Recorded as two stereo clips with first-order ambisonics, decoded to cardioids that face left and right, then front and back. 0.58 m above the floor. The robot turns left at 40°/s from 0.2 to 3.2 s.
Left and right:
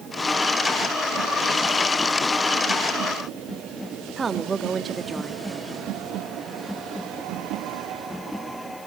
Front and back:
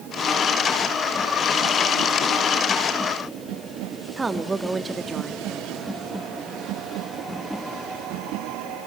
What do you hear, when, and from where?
4.2 s a woman speaking: 125° right, 0.8 m